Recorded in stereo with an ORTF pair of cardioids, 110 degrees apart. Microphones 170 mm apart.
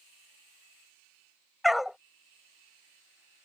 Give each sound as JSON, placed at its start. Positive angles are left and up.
{"t": 1.6, "sound": "a dog barking", "azimuth_deg": 0}